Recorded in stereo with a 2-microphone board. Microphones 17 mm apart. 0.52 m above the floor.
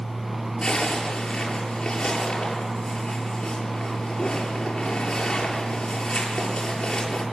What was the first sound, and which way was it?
A zipper, 65° left (ahead or behind).